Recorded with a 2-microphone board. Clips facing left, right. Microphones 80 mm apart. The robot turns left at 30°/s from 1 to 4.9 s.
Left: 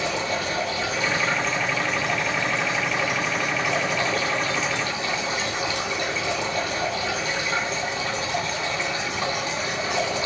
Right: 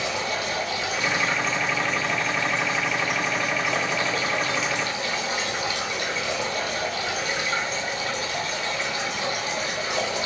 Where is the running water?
150° left, 2 m; by 10.3 s 35° left, 2 m.